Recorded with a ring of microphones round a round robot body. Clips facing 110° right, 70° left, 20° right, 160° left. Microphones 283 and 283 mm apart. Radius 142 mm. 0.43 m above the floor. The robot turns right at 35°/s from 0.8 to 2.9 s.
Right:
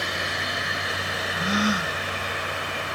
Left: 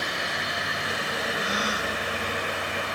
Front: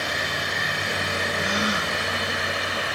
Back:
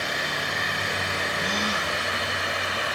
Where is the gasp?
115° right; by 1.9 s 90° right.